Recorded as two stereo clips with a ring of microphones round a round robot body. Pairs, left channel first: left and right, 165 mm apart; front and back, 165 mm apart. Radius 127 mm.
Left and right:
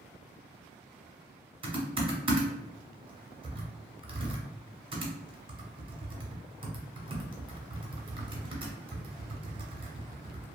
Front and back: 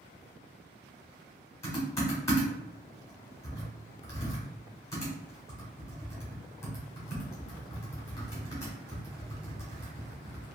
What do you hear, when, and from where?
1.6 s typing on a keyboard: 60° right, 1.1 m